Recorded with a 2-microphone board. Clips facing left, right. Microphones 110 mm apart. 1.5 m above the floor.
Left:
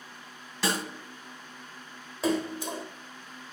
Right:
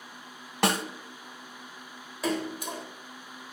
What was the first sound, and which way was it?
A snare drum, 60° right (ahead or behind).